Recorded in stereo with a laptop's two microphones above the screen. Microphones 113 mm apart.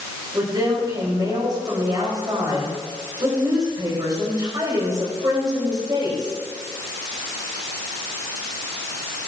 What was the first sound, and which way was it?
A woman speaking, 40° right (ahead or behind).